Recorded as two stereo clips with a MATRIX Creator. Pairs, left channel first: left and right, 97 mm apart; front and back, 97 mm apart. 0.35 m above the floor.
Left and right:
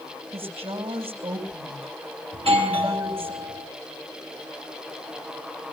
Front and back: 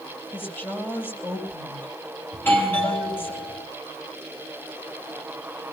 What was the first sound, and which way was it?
A woman speaking, 70° right.